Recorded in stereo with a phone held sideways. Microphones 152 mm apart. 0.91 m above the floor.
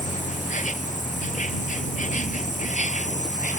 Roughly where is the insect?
Left.